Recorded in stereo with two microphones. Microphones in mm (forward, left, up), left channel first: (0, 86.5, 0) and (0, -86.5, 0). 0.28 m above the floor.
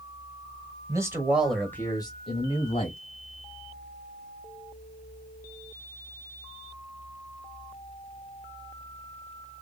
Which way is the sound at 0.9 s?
20° right (ahead or behind).